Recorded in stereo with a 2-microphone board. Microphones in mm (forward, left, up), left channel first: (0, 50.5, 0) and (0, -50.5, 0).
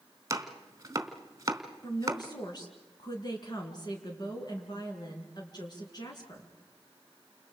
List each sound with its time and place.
0.3 s chopping: 30° right (ahead or behind), 1.5 m
1.8 s a woman speaking: 45° left (ahead or behind), 4.5 m